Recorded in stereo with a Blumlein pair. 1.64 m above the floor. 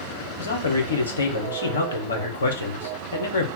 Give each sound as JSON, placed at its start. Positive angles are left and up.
{"t": 0.4, "sound": "a man speaking", "azimuth_deg": 70, "distance_m": 1.0}